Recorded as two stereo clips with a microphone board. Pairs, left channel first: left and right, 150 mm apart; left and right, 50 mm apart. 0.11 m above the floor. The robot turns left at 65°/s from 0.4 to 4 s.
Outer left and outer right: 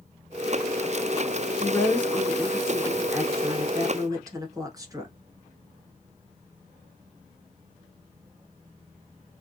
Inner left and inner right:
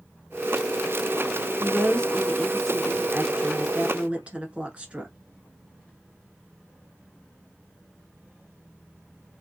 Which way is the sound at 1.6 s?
20° left (ahead or behind).